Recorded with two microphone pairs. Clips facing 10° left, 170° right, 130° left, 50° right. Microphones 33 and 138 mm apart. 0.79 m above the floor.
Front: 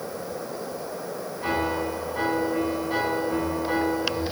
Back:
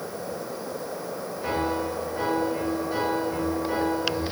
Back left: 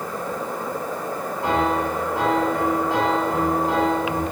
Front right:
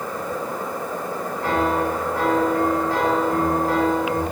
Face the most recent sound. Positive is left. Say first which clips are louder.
# front 1 dB, even
turn(degrees=60)